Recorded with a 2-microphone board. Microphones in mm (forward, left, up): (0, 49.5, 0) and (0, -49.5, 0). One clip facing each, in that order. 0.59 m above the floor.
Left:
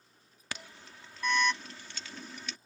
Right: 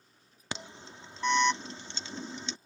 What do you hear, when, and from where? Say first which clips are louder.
0.5 s an alarm: right 4 dB; 25° right (ahead or behind)